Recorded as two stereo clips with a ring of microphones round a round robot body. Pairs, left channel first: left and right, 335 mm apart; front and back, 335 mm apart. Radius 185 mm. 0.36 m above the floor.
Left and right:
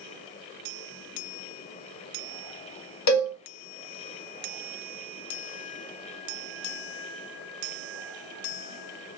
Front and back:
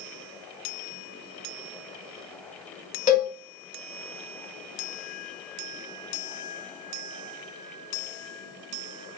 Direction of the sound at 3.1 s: 70° left.